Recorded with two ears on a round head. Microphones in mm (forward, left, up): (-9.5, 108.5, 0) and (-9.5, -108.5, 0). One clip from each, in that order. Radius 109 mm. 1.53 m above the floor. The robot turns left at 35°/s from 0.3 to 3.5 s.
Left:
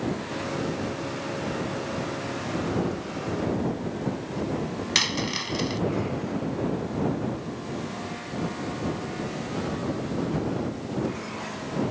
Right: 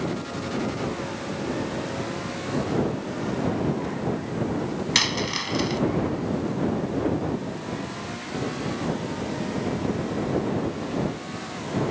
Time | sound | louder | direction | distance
5.0 | a dropped coin | right 1 dB | 5° left (ahead or behind) | ?